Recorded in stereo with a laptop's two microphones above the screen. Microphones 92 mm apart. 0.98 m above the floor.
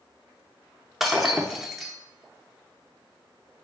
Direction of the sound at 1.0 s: 5° right (ahead or behind).